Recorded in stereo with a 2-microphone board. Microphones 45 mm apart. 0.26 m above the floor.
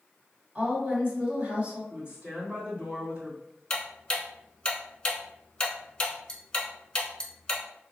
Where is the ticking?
20° left (ahead or behind), 0.8 m.